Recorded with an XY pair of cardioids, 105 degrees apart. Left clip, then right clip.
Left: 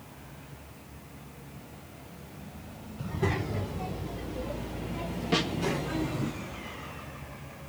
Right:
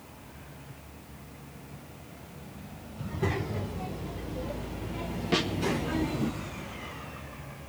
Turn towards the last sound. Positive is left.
turn(degrees=-10)